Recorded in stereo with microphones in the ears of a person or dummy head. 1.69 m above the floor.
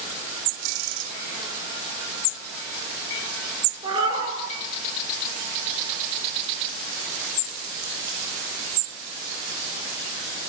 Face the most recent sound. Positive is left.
turn(degrees=-30)  # may be behind; listen again after turning